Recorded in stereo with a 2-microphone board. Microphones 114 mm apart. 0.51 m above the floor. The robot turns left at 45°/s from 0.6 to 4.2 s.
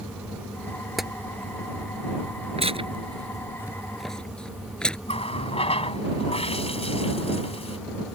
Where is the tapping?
Centre (ahead or behind); by 1.1 s 5° right (ahead or behind).